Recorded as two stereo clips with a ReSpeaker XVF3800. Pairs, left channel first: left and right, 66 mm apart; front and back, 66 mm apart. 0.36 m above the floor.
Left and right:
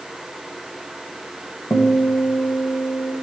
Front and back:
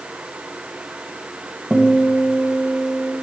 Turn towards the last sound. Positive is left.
turn(degrees=100)